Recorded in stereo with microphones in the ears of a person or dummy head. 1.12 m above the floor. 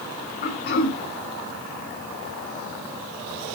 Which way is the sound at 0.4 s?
50° left (ahead or behind).